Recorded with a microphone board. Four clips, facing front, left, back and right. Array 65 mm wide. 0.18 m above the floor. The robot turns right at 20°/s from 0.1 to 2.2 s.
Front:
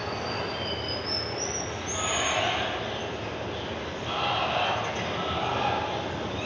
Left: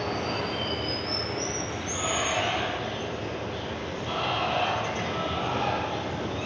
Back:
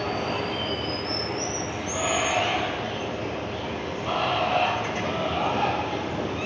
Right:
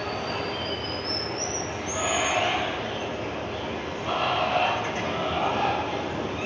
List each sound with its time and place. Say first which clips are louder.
0.0 s running water: even, back 4 dB; 170° left, 1.6 m; by 6.5 s 145° right, 1.6 m